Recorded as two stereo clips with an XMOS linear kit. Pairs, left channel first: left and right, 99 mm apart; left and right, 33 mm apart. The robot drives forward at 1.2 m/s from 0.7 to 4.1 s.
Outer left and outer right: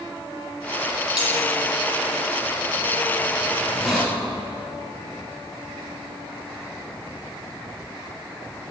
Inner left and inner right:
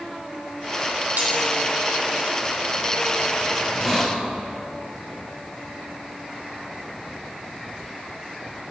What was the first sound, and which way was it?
Cutlery clinking, 75° right (ahead or behind).